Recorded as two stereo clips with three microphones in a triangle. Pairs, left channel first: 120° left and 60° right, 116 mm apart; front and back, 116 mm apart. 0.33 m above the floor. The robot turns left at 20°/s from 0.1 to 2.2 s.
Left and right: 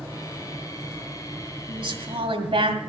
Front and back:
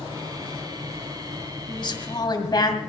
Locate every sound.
1.7 s a woman speaking: 30° right, 1.9 m; by 2.8 s 40° right, 1.9 m